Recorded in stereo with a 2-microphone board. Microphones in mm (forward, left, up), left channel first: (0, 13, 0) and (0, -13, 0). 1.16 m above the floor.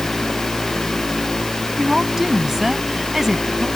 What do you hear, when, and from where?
1.8 s a woman speaking: 10° right (ahead or behind)